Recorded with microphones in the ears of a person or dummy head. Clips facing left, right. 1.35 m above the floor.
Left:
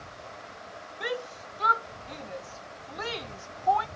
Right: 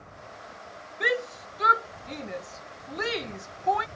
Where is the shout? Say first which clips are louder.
Right 5 dB; 30° right (ahead or behind).